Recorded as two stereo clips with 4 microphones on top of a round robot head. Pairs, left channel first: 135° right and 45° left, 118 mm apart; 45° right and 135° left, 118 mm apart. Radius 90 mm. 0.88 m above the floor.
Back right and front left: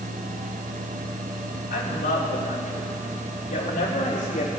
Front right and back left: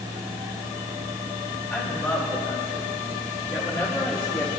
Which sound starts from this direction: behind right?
A woman speaking, at 1.7 s.